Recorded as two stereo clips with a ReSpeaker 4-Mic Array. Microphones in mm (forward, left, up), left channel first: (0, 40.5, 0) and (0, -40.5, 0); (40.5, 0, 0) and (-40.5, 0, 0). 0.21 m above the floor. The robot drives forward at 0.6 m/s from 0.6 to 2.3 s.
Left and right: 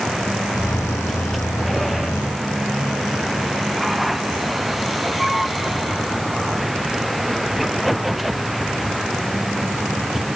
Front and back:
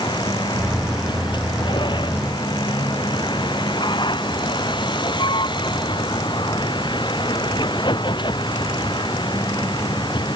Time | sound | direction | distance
0.0 | a vehicle | straight ahead | ?